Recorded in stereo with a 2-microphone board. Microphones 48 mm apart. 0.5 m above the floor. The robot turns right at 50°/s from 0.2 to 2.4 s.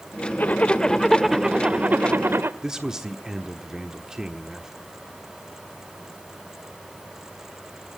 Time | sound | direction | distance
0.4 | a zipper | 140° left | 0.8 m
2.6 | a man speaking | 10° right (ahead or behind) | 1.1 m